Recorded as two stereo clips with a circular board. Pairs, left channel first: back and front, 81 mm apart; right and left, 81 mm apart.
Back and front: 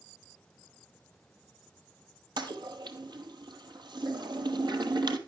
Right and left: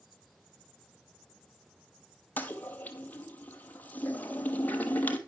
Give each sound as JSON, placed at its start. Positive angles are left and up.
{"t": 2.4, "sound": "a toilet flushing", "azimuth_deg": -20, "distance_m": 1.0}